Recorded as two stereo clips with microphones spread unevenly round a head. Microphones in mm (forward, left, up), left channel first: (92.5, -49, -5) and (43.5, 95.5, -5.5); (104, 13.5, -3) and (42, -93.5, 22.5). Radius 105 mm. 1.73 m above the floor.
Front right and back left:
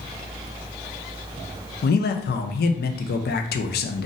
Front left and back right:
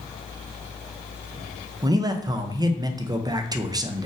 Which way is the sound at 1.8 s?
65° right.